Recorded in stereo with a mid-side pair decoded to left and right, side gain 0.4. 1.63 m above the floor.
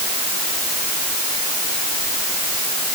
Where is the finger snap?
I don't hear a finger snap.